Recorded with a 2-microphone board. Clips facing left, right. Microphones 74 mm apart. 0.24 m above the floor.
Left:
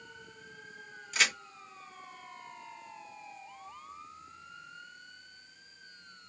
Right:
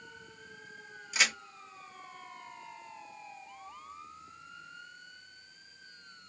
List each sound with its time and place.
1.1 s a crack: 10° right (ahead or behind), 0.9 m